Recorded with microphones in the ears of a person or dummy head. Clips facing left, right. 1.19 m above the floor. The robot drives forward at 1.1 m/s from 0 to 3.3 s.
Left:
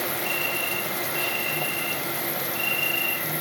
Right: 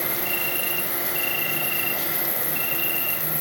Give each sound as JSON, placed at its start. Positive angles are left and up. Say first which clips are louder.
{"t": 0.0, "sound": "an insect", "louder": "left 1 dB", "side_deg": 0, "distance_m": 6.5}